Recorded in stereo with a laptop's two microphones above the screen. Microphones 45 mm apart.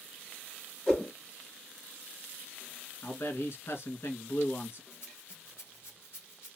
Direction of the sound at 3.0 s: 55° left (ahead or behind).